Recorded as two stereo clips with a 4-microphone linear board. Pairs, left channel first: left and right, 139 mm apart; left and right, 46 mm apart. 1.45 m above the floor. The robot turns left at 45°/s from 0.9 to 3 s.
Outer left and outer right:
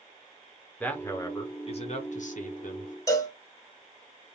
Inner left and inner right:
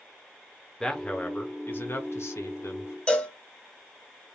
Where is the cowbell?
25° left (ahead or behind), 0.7 m.